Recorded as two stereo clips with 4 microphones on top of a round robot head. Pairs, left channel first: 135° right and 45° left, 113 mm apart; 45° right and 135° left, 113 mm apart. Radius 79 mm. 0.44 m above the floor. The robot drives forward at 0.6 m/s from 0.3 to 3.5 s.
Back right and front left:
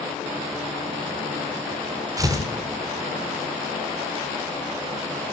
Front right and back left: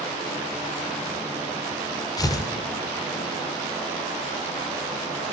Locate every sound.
2.2 s tearing paper: straight ahead, 2 m